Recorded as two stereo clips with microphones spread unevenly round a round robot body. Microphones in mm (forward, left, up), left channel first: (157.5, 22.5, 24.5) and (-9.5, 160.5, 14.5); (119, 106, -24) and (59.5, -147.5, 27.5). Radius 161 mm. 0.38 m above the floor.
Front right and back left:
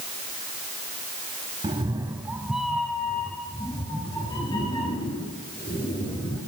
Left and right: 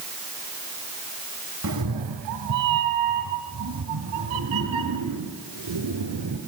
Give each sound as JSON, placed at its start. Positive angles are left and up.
{"t": 1.6, "sound": "a cat meowing", "azimuth_deg": -150, "distance_m": 0.7}